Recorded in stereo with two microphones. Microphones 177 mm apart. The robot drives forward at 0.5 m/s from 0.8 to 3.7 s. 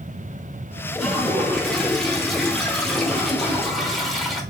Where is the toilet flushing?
Centre (ahead or behind), 1.1 m.